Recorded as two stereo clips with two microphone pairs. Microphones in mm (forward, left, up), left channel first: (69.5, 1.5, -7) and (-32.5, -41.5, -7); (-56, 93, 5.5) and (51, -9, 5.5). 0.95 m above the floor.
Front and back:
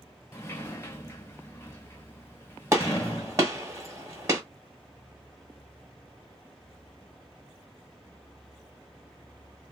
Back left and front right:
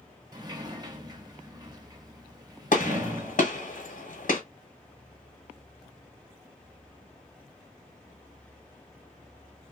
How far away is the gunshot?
About 1.3 m.